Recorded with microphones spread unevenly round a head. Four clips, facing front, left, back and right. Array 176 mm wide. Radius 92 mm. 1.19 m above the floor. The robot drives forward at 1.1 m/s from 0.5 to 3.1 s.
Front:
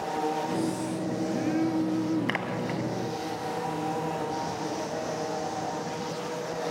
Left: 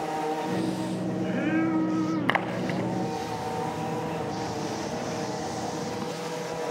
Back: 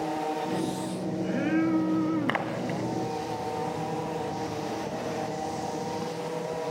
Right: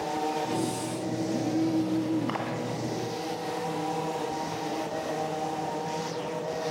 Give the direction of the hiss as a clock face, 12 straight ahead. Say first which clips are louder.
Left 1 dB, front 1 dB; 4 o'clock.